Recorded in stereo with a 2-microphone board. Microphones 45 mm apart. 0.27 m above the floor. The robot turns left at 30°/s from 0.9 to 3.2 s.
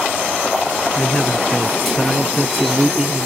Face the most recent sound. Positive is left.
turn(degrees=-25)